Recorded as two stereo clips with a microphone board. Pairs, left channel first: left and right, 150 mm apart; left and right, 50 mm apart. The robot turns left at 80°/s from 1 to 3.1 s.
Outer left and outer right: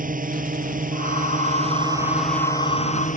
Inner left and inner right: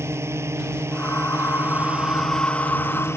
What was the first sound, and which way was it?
A drone, 80° right.